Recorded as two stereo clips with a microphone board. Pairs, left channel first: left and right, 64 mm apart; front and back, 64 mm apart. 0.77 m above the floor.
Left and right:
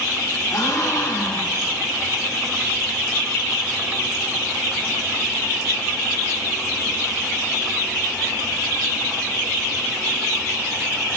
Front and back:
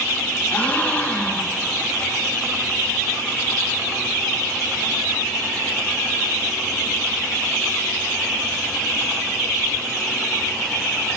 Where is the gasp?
65° left, 3.5 m.